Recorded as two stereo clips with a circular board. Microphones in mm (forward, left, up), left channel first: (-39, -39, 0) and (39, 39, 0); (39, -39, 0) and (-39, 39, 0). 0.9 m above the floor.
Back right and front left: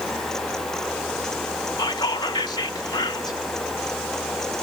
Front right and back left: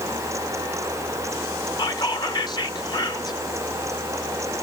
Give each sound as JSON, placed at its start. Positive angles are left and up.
{"t": 1.8, "sound": "whispering", "azimuth_deg": -90, "distance_m": 0.7}